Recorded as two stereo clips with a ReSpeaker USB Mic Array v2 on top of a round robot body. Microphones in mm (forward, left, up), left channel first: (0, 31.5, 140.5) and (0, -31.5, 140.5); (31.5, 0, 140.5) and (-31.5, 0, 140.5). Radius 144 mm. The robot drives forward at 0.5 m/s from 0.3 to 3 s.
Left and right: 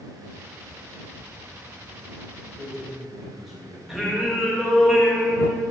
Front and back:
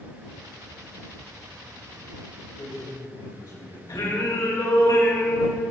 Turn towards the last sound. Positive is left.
turn(degrees=-5)